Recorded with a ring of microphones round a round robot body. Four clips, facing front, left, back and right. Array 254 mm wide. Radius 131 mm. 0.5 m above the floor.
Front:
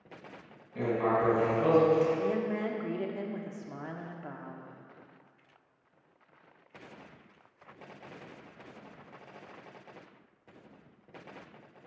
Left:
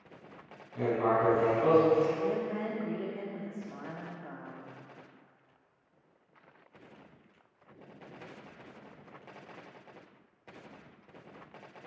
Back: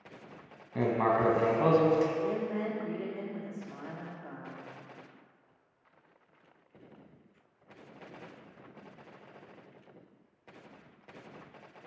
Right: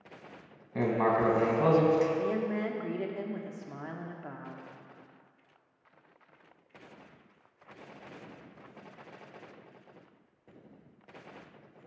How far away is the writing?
About 1.4 m.